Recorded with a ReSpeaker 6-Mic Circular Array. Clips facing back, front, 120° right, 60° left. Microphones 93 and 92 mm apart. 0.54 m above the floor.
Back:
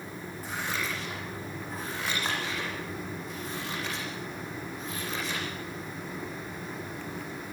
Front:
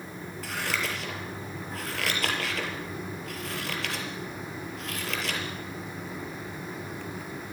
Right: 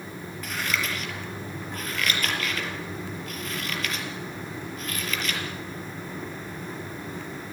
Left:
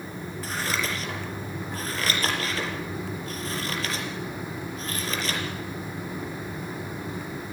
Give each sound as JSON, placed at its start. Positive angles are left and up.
{"t": 0.4, "sound": "scissors", "azimuth_deg": 5, "distance_m": 4.5}